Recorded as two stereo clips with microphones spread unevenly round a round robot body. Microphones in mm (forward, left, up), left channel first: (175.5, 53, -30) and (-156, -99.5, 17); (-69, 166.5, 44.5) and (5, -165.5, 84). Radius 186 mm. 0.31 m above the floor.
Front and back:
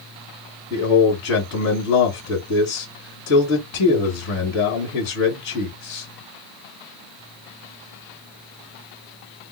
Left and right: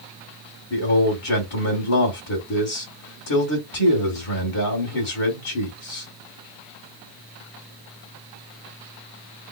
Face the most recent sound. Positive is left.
turn(degrees=80)